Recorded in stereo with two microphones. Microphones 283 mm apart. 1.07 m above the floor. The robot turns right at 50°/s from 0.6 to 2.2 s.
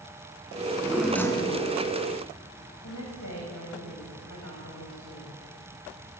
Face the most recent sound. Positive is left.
turn(degrees=85)